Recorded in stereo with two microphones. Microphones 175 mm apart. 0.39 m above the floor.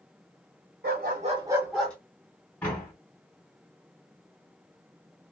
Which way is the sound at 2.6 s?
10° left (ahead or behind).